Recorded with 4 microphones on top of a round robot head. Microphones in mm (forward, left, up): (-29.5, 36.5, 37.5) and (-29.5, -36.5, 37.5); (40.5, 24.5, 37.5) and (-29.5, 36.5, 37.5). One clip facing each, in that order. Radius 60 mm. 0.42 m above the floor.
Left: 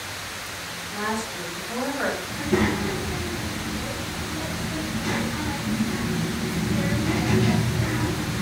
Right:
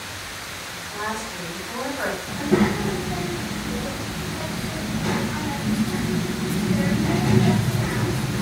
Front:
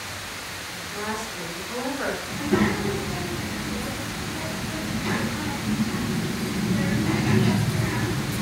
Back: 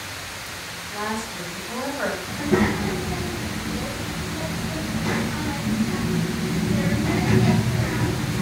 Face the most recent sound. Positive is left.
turn(degrees=-135)